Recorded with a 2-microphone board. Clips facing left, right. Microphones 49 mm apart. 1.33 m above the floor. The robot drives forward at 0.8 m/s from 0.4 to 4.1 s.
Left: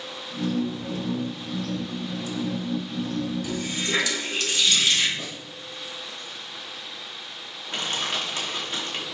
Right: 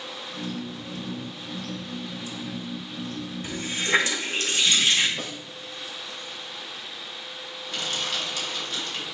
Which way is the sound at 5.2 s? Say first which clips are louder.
Right 1 dB; 65° right (ahead or behind).